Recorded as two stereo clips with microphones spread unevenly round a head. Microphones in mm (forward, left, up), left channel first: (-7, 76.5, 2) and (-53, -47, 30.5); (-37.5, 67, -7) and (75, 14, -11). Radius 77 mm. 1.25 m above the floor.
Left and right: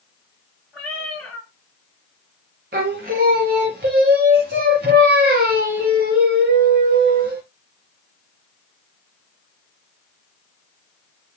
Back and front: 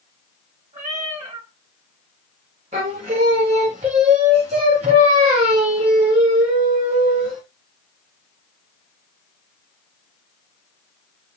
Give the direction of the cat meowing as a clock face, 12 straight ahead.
1 o'clock.